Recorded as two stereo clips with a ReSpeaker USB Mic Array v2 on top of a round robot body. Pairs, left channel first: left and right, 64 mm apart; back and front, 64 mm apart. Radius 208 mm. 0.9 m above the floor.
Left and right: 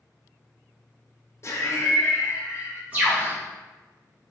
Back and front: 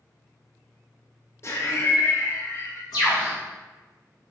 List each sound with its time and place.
1.4 s laughter: 135° left, 0.7 m
2.9 s a bird: 155° right, 0.6 m